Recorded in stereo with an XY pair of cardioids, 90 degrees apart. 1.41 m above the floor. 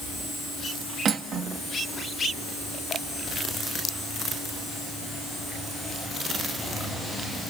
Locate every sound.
1.1 s cutlery clinking: 65° right, 1.5 m